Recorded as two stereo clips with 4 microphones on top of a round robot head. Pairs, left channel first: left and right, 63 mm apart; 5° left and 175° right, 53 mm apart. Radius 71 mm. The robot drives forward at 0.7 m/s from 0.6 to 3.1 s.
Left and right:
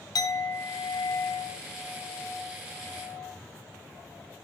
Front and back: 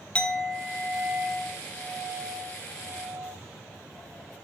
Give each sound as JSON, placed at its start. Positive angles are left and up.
{"t": 0.1, "sound": "a clink", "azimuth_deg": 80, "distance_m": 0.9}